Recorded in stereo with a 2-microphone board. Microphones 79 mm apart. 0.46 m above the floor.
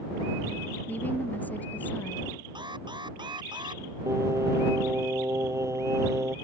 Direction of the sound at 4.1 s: 40° right (ahead or behind).